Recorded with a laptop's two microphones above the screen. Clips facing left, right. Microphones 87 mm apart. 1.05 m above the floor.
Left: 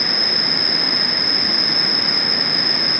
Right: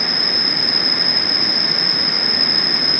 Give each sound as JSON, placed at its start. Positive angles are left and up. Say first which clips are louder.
{"t": 0.0, "sound": "an insect", "louder": "even", "side_deg": 0, "distance_m": 3.5}